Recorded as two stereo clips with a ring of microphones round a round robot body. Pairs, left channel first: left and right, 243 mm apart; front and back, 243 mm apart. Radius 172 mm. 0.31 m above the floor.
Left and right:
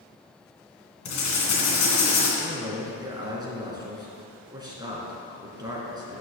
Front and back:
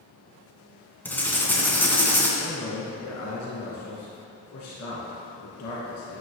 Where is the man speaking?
15° right, 3.5 m.